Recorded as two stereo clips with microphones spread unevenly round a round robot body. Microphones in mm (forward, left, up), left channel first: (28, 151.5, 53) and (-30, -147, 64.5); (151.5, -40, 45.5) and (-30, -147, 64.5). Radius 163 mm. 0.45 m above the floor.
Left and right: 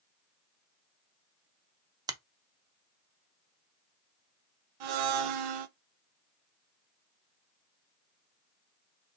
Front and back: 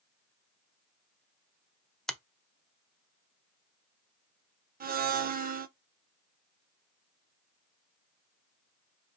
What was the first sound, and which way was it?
A finger snap, 40° right.